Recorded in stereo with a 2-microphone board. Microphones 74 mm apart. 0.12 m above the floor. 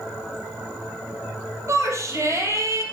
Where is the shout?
40° right (ahead or behind), 3 m.